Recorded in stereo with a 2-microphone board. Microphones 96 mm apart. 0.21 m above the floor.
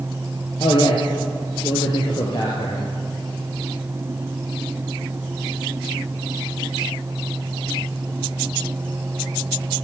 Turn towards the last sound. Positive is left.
turn(degrees=55)  # may be behind; listen again after turning